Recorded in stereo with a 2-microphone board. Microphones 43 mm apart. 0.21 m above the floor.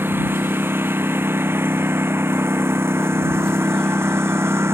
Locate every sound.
0.0 s a lawn mower: 55° right (ahead or behind); by 4.7 s 80° right